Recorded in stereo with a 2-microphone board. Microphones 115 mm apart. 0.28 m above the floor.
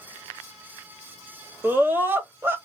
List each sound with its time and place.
1.6 s a scream: 20° right (ahead or behind), 1.5 m